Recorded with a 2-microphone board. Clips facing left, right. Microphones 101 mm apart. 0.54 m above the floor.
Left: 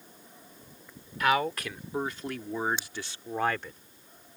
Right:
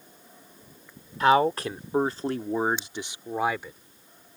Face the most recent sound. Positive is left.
turn(degrees=-5)  # may be behind; listen again after turning